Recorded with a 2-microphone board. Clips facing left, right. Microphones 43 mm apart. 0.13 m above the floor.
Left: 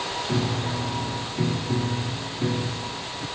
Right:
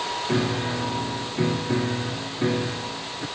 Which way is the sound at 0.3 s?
35° right (ahead or behind).